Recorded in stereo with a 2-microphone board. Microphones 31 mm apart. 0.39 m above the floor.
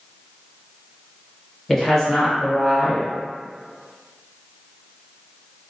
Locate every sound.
1.7 s a woman speaking: 10° left (ahead or behind), 1.0 m